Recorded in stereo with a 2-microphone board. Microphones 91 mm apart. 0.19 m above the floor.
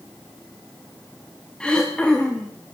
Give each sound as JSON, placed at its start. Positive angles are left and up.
{"t": 1.6, "sound": "throat clearing", "side_deg": 10, "distance_m": 5.5}